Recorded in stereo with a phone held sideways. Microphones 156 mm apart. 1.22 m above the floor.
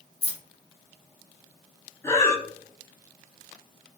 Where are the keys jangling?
40° left (ahead or behind), 0.7 m.